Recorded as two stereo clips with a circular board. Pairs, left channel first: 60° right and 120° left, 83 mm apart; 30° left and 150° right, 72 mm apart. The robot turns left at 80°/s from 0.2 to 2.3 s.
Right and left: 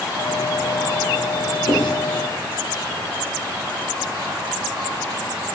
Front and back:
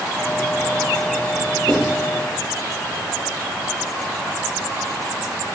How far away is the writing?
About 5.5 m.